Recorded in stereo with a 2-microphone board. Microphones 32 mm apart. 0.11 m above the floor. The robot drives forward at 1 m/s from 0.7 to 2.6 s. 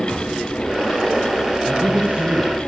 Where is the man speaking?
50° right (ahead or behind), 4 m; by 2.5 s 60° right (ahead or behind), 4 m.